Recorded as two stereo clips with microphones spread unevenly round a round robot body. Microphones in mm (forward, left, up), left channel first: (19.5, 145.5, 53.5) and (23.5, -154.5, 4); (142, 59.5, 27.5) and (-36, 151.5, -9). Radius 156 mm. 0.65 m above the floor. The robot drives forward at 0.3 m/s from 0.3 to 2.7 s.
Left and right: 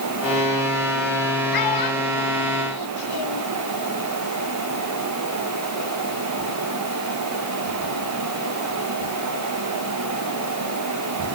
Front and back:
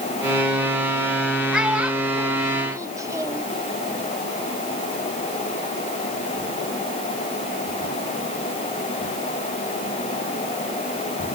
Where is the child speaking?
65° left, 1.7 m; by 3.5 s 80° left, 1.6 m.